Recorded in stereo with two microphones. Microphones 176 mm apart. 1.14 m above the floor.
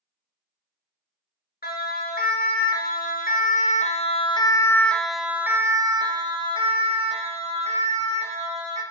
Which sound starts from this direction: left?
A siren, at 1.6 s.